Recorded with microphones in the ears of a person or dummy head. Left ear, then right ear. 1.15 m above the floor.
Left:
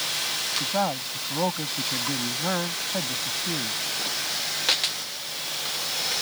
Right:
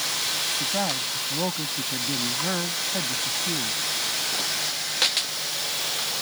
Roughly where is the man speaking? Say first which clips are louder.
Even; left.